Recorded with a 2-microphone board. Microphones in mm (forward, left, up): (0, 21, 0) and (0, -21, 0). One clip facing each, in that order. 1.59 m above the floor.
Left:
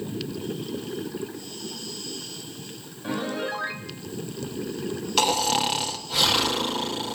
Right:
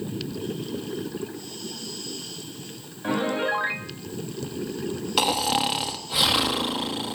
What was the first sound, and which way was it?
A piano, 30° right (ahead or behind).